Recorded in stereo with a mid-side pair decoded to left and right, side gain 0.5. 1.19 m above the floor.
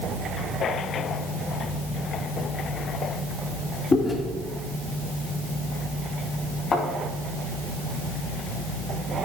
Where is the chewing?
25° left, 2.5 m.